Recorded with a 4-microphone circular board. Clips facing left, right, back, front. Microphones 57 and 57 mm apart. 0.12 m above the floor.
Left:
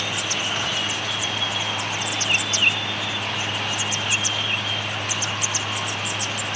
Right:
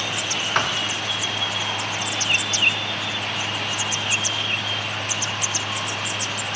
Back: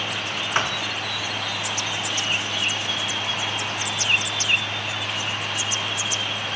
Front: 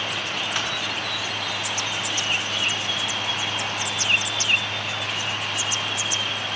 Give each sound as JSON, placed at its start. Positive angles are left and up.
{"t": 0.6, "sound": "a thud", "azimuth_deg": -125, "distance_m": 3.5}